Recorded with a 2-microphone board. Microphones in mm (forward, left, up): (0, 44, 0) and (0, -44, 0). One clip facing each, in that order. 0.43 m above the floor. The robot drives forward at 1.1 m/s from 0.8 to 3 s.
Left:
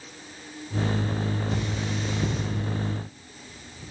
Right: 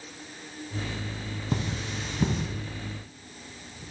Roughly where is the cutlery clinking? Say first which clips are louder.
Left 2 dB; right.